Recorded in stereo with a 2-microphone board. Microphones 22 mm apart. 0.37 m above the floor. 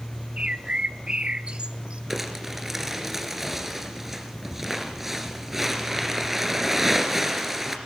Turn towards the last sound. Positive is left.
turn(degrees=-10)  # may be behind; listen again after turning